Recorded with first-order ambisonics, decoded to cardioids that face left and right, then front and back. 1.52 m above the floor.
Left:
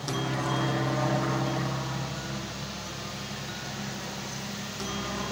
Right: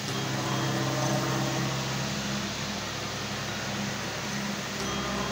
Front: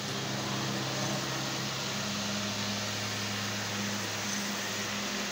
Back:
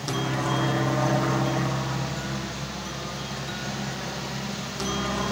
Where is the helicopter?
165° left; by 5.3 s 175° right.